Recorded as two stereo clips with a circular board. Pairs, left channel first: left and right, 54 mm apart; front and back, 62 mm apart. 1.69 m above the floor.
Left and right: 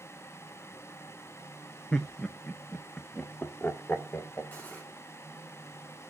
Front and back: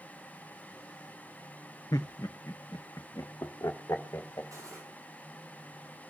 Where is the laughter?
25° left, 0.9 m; by 4.4 s 45° left, 2 m.